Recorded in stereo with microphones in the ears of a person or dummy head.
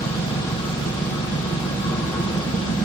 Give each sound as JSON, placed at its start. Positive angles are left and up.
{"t": 0.0, "sound": "an engine running", "side_deg": 20, "distance_m": 4.0}